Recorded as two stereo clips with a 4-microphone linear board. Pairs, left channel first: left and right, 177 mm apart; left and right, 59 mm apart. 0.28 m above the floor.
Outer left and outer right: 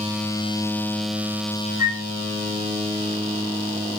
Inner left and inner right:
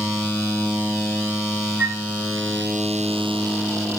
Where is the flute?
15° right (ahead or behind), 1.1 m.